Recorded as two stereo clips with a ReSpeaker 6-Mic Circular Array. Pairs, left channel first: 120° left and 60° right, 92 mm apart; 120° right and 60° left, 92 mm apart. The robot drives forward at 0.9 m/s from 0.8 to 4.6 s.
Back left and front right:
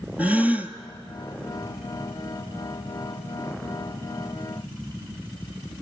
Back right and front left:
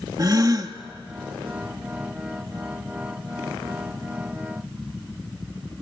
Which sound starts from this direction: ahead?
A gasp, at 0.2 s.